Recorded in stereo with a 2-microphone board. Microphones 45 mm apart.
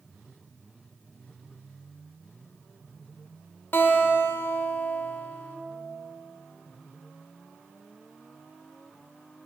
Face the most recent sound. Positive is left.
turn(degrees=50)  # may be behind; listen again after turning